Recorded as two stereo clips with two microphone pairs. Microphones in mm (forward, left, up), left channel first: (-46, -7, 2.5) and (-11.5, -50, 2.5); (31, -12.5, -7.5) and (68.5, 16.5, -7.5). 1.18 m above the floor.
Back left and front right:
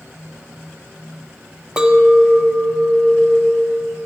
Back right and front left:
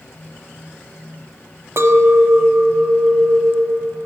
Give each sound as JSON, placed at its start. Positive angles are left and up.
{"t": 1.8, "sound": "a clink", "azimuth_deg": 20, "distance_m": 0.8}